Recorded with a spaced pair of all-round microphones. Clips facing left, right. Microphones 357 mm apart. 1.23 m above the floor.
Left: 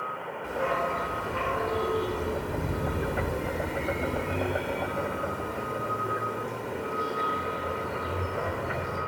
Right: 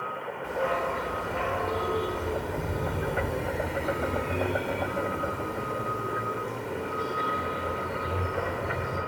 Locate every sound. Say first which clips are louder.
0.4 s a dog barking: right 1 dB; 15° left (ahead or behind), 1.7 m; by 9.0 s 10° right (ahead or behind), 3 m